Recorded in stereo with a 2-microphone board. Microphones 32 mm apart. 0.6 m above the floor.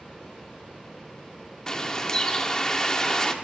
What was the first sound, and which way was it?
A bird, 25° left (ahead or behind).